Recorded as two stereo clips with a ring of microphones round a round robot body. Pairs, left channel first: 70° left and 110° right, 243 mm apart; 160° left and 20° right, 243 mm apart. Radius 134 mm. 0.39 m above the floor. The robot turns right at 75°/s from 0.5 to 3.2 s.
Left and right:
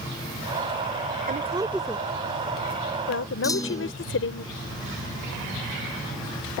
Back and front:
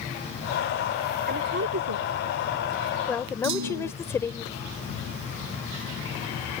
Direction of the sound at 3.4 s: 10° right.